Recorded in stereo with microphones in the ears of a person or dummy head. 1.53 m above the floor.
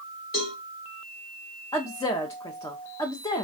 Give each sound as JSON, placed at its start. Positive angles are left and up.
{"t": 0.3, "sound": "a cowbell", "side_deg": 35, "distance_m": 1.1}
{"t": 1.7, "sound": "a woman speaking", "side_deg": 20, "distance_m": 0.6}